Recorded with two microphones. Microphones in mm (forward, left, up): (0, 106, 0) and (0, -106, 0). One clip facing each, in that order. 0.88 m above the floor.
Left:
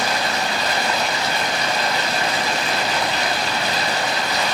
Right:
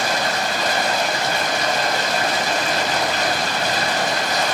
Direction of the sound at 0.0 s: 45° right (ahead or behind).